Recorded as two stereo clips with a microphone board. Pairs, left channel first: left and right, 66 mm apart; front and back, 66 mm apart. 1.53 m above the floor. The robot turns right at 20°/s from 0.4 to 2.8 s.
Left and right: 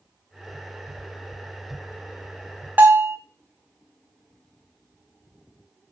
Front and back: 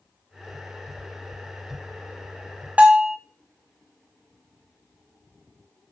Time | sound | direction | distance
2.8 | a bell | 125° right | 0.6 m